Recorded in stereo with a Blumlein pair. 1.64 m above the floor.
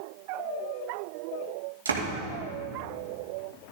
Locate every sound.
1.9 s a door slam: 70° right, 2 m